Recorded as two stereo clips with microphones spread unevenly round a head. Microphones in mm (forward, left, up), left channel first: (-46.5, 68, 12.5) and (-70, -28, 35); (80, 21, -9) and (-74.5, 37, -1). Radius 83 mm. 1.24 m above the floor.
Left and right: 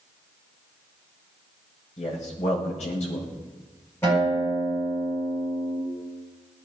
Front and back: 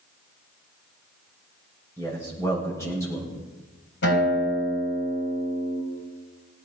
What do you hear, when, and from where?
2.0 s a man speaking: 65° left, 7.5 m
4.0 s a guitar: straight ahead, 8.5 m